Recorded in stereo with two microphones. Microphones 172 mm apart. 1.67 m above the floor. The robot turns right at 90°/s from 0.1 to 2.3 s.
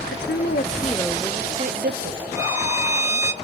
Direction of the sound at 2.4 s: 15° right (ahead or behind).